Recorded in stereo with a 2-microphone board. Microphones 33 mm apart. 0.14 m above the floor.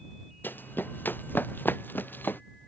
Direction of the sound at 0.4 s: 90° left.